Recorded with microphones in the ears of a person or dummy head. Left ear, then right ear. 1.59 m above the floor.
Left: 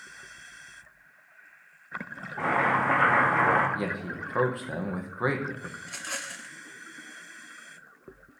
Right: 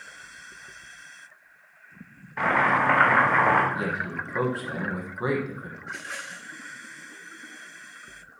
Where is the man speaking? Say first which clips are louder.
Right 4 dB; 20° left (ahead or behind), 1.1 m.